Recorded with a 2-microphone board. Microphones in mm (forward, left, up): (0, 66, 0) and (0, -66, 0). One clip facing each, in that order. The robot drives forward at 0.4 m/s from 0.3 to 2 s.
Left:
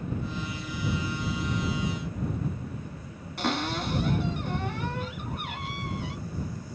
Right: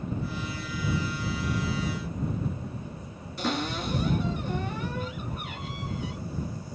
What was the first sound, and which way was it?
A cupboard door, 65° left (ahead or behind).